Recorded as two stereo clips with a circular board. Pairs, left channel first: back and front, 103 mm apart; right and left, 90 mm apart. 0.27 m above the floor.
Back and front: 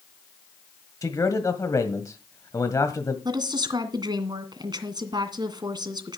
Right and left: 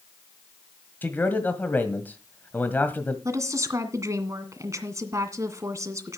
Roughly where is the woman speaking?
Ahead left.